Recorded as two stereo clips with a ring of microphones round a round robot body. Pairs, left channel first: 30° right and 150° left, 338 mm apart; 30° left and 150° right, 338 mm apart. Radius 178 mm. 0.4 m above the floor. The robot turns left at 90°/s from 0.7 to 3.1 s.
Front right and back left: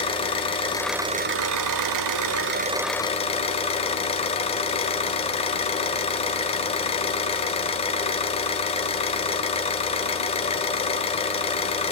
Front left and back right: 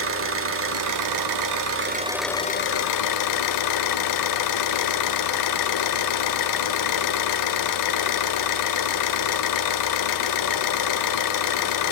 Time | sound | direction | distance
0.0 | an engine running | 105° right | 1.3 m